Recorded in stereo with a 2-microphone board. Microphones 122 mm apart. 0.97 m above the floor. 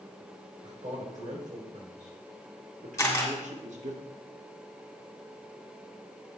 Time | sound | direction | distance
0.6 | a man speaking | 80° right | 4 m
3.0 | a camera shutter | 25° left (ahead or behind) | 2.5 m